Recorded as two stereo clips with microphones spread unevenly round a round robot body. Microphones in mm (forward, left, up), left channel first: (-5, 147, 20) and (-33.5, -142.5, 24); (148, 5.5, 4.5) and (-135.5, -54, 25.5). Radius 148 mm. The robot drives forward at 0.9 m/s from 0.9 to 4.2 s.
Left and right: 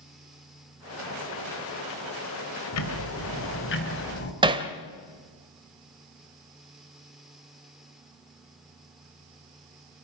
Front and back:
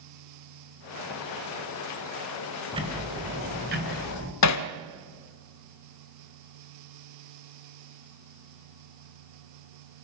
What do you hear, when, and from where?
2.7 s ticking: 115° left, 2.5 m; by 4.3 s 140° left, 3 m
4.4 s hammering: 20° right, 1.2 m